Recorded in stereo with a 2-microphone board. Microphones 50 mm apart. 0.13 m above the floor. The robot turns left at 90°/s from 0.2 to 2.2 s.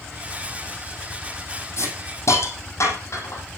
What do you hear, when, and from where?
1.8 s a hiss: 60° left (ahead or behind), 5 m; by 3.4 s 70° left (ahead or behind), 5 m